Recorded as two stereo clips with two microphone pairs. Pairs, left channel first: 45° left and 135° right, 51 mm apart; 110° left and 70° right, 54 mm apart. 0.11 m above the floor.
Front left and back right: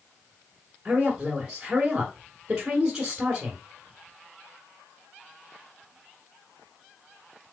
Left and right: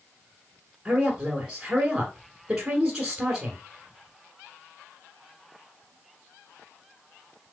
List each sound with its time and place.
0.8 s a woman speaking: 140° right, 1.3 m